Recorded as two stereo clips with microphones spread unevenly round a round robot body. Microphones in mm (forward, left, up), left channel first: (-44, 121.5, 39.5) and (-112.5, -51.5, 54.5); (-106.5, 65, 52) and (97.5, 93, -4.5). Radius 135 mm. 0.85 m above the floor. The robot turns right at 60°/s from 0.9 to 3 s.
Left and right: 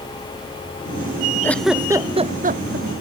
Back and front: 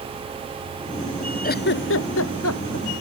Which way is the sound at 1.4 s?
145° left.